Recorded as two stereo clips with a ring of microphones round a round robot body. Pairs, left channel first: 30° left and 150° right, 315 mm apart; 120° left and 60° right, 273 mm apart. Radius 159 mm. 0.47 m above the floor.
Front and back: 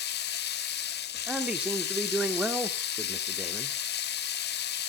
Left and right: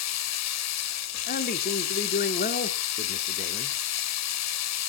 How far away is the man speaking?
About 1.2 m.